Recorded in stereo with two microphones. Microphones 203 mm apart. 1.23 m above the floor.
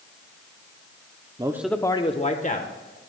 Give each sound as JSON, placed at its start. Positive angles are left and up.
{"t": 1.4, "sound": "a man speaking", "side_deg": -20, "distance_m": 0.6}